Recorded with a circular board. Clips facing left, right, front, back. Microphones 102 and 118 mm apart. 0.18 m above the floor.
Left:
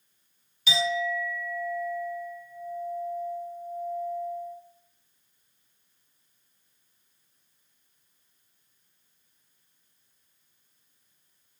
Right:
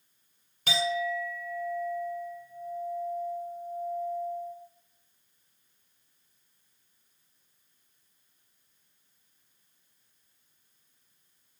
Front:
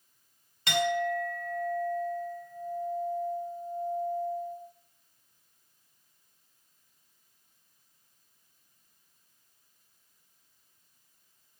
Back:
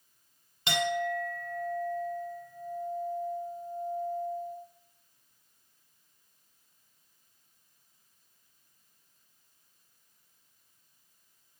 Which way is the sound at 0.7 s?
115° right.